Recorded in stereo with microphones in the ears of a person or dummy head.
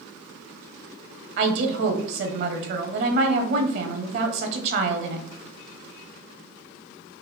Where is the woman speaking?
55° right (ahead or behind), 0.7 m.